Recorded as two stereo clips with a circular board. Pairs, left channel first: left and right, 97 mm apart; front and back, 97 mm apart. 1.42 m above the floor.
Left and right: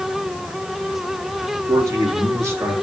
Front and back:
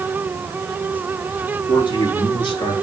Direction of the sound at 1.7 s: 35° right.